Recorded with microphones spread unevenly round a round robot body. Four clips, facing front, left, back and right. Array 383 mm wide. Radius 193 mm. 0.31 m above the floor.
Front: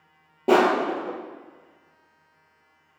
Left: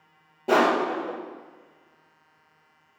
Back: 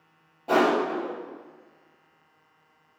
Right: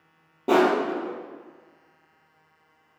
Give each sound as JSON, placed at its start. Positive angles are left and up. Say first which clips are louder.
{"t": 0.5, "sound": "crushing", "louder": "right 1 dB, front 3 dB", "azimuth_deg": -25, "distance_m": 2.0}